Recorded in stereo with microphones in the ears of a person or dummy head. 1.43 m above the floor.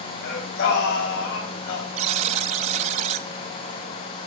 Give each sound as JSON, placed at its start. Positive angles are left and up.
{"t": 0.2, "sound": "singing", "side_deg": 65, "distance_m": 7.0}
{"t": 2.0, "sound": "a buzzer", "side_deg": -35, "distance_m": 0.7}